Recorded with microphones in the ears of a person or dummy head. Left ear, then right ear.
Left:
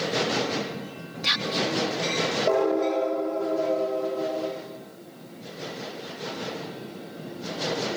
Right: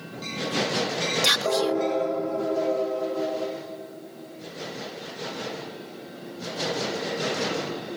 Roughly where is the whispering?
Right.